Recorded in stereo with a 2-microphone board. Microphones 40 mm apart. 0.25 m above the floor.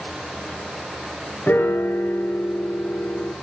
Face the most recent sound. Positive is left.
turn(degrees=60)  # may be behind; listen again after turning